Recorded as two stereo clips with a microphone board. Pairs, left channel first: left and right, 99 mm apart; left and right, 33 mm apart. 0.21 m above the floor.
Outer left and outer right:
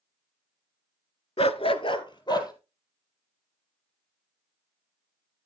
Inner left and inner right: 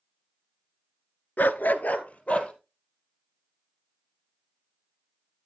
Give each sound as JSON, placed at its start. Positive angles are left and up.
{"t": 1.4, "sound": "a dog barking", "side_deg": 70, "distance_m": 0.6}